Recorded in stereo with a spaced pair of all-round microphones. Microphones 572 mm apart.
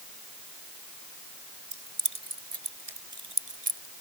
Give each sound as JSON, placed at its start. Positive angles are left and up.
{"t": 1.7, "sound": "keys jangling", "side_deg": -70}